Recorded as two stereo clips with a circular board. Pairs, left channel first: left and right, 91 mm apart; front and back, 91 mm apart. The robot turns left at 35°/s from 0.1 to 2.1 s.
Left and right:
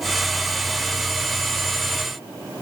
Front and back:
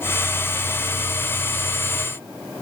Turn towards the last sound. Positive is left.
No sound to turn to.